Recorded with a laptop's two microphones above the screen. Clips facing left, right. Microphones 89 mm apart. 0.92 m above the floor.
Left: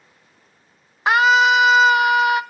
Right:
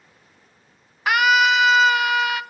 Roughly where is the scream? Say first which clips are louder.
Left 3 dB; left.